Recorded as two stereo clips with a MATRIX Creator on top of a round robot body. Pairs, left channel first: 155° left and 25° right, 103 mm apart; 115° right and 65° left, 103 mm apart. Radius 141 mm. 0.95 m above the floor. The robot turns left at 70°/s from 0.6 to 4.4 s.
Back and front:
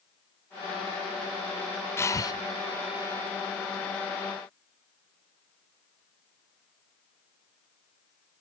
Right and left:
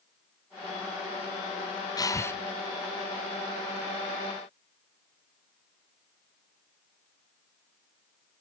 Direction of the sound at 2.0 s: 145° right.